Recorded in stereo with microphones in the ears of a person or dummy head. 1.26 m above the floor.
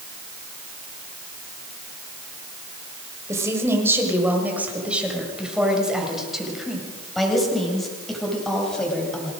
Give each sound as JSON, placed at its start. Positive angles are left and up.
{"t": 3.3, "sound": "a woman speaking", "side_deg": -15, "distance_m": 6.0}